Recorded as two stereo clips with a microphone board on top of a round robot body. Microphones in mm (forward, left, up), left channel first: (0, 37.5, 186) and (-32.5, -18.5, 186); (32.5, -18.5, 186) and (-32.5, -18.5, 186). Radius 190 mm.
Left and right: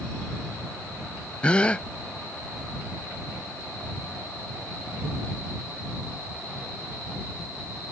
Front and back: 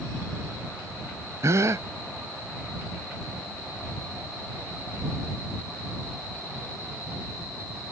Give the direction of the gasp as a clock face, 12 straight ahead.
8 o'clock.